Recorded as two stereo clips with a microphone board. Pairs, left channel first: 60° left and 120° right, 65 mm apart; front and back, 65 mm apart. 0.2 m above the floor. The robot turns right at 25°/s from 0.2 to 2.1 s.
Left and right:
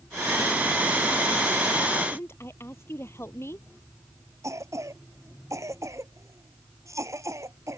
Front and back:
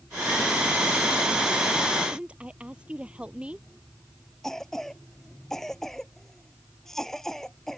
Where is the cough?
85° right.